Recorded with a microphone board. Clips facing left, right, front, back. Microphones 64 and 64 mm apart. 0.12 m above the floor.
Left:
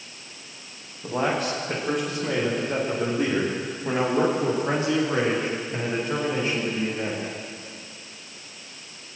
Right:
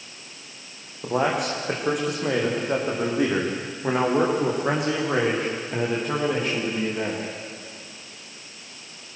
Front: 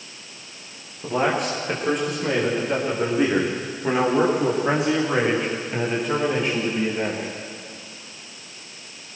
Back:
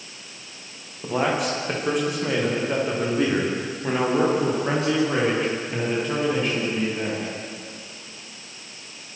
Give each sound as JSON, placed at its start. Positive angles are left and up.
{"t": 1.0, "sound": "a man speaking", "azimuth_deg": -95, "distance_m": 9.0}